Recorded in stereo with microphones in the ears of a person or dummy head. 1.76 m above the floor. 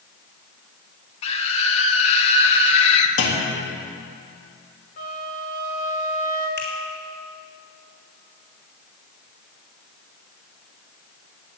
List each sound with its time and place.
1.2 s a scream: 35° left (ahead or behind), 1.8 m
3.2 s a clunk: 75° left (ahead or behind), 3 m
5.0 s a flute: 45° left (ahead or behind), 6 m
6.6 s a finger snap: 50° left (ahead or behind), 4 m